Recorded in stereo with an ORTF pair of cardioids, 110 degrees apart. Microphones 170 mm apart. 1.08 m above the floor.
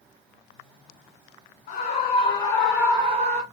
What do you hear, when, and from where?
1.7 s a scream: 55° left, 1.2 m; by 3.4 s 50° right, 1.1 m